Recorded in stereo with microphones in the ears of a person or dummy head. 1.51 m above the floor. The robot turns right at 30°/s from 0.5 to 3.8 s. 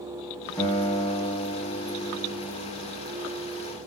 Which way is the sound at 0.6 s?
Straight ahead.